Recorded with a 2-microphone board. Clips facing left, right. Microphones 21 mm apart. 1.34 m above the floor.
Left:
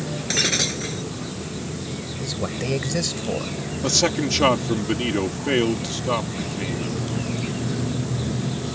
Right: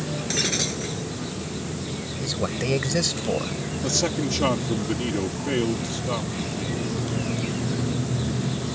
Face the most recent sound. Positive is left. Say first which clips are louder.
# left 4 dB
turn(degrees=30)  # may be behind; listen again after turning